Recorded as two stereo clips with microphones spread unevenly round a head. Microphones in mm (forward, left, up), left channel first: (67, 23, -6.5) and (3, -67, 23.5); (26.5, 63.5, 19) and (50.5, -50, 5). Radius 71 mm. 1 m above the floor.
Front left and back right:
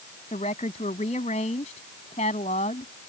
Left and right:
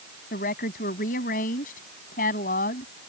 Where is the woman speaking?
105° left.